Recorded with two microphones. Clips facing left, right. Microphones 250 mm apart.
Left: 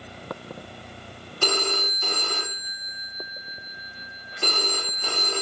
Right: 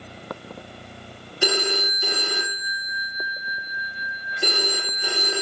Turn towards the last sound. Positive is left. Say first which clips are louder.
# right 3 dB
turn(degrees=-10)  # may be behind; listen again after turning